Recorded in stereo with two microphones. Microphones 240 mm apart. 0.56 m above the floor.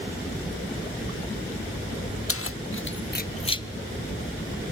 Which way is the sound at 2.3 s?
65° left (ahead or behind).